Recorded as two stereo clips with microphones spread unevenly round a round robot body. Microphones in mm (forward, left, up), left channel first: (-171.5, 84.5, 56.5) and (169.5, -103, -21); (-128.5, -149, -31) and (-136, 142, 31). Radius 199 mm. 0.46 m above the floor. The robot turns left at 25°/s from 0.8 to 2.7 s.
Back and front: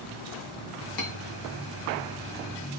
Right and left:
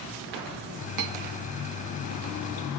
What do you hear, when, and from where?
1.0 s cutlery clinking: 110° left, 1.3 m; by 1.1 s 105° left, 1.3 m